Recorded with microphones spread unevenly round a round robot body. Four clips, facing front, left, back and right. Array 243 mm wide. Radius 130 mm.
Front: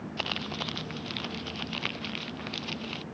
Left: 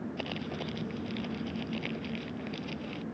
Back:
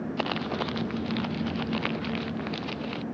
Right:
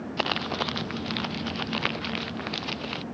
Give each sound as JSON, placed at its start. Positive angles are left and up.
{"t": 0.2, "sound": "crumpling", "azimuth_deg": -100}